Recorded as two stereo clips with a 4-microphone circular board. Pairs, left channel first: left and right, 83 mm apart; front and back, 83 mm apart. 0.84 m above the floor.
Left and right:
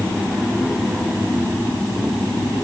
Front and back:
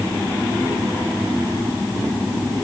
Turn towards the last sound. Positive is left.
No sound to turn to.